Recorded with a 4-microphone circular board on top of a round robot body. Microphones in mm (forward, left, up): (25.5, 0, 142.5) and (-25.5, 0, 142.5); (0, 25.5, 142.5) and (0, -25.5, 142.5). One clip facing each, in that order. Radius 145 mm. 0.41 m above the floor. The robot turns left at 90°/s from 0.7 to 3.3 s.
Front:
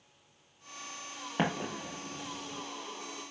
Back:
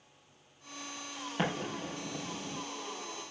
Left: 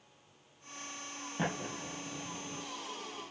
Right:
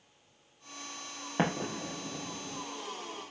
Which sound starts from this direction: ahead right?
An explosion, at 1.4 s.